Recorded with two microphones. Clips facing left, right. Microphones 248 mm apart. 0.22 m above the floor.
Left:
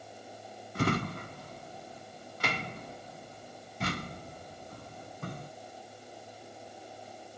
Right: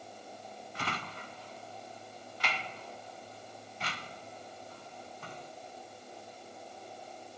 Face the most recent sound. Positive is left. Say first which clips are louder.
# left 13 dB
turn(degrees=50)  # may be behind; listen again after turning